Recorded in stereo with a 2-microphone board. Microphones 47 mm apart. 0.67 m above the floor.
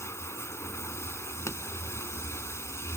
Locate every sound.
0.0 s running water: 70° left (ahead or behind)
1.5 s a pop: 75° left (ahead or behind)